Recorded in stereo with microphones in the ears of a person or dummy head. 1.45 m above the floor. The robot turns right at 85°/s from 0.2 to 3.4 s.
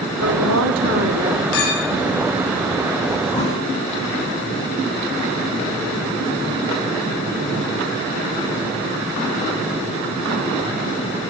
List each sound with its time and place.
0.2 s a woman speaking: 130° right, 3.5 m; by 1.4 s 25° right, 3.5 m
1.5 s a clink: 85° left, 6.5 m; by 1.9 s 120° left, 6.5 m
3.3 s a thud: 25° left (ahead or behind), 8.5 m; by 3.6 s 15° left (ahead or behind), 8.5 m